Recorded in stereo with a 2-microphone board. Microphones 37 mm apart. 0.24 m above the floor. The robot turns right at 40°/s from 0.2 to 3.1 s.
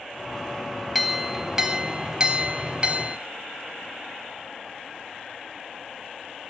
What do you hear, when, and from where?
0.9 s a clink: 175° right, 0.6 m; by 3.2 s 90° right, 0.6 m